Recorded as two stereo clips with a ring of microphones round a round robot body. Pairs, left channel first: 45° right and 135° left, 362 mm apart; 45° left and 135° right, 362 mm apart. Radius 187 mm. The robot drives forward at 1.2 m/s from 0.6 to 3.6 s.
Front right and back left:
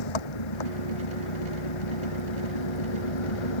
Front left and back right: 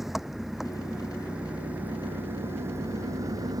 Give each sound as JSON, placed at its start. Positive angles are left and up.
{"t": 0.0, "sound": "an engine running", "azimuth_deg": -45}